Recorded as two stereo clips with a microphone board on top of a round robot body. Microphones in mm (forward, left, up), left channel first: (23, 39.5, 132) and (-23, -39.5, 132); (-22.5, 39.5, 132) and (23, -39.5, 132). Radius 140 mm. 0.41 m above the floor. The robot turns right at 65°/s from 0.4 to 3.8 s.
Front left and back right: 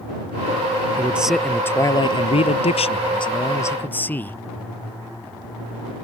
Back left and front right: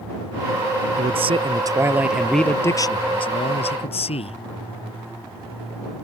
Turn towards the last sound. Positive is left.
turn(degrees=130)